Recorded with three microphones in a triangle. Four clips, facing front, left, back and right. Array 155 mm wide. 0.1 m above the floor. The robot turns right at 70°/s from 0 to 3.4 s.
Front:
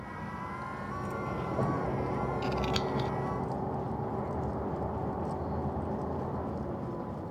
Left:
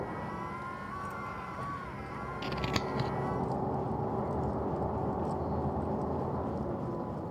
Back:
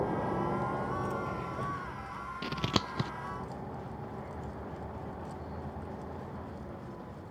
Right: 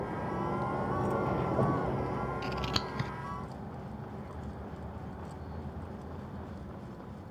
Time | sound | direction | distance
0.0 | a vehicle | straight behind | ?
2.4 | scissors | 145° left | ?